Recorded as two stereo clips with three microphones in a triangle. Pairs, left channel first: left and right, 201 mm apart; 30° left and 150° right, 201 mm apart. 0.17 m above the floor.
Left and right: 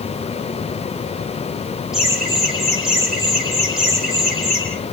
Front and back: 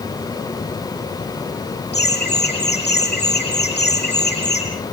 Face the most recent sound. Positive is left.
turn(degrees=-5)